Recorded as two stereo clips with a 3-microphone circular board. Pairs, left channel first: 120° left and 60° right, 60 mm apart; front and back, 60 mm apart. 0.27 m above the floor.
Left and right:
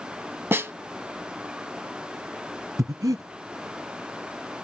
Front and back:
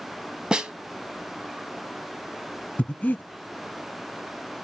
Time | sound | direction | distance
0.5 | a snare drum | 105° right | 0.6 m
2.8 | breathing | 65° right | 0.5 m